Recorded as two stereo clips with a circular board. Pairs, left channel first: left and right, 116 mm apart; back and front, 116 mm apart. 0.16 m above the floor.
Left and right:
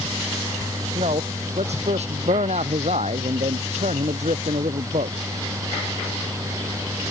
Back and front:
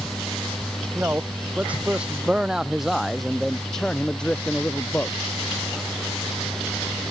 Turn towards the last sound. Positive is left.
turn(degrees=-105)